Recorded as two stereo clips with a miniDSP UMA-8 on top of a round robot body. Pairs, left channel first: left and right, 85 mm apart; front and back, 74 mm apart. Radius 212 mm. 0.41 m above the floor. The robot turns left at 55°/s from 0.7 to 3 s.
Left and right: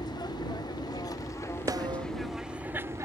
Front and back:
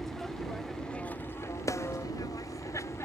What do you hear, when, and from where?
0.0 s an aircraft: 85° left; by 3.1 s 40° right
1.7 s a snare drum: 45° right; by 2.0 s 65° right